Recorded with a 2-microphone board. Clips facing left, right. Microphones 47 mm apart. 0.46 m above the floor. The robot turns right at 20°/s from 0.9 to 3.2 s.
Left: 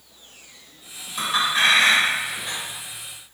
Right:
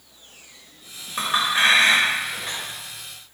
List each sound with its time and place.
1.2 s a clink: 35° right (ahead or behind), 1.1 m; by 2.6 s 10° right (ahead or behind), 1.1 m